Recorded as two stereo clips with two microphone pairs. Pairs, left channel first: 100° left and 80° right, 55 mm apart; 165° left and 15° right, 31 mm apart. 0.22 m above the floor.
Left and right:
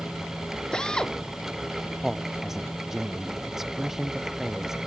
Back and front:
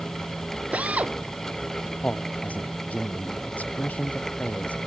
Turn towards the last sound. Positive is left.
turn(degrees=-165)